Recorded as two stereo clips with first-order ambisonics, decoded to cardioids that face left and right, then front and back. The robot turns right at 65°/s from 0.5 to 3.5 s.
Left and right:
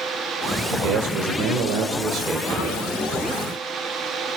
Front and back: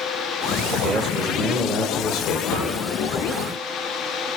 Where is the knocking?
30° right, 7.5 m; by 2.8 s 15° right, 7.5 m.